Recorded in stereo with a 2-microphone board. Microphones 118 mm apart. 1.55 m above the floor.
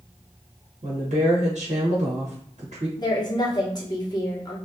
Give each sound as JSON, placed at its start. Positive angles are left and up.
{"t": 0.8, "sound": "a woman speaking", "side_deg": -70, "distance_m": 1.2}
{"t": 3.0, "sound": "a woman speaking", "side_deg": 35, "distance_m": 1.4}